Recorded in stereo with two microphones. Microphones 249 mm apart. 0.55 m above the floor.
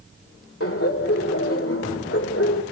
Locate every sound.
0.6 s laughter: 60° left (ahead or behind), 2 m